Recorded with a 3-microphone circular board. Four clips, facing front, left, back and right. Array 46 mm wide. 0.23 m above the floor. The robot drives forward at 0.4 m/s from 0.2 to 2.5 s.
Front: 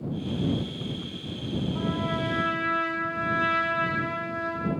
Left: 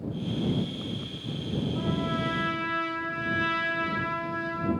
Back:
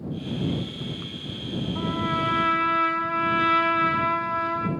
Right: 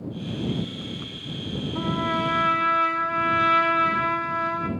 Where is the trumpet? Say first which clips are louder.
Right 7 dB, back 5 dB; 110° right, 0.8 m; by 4.7 s 130° right, 1.0 m.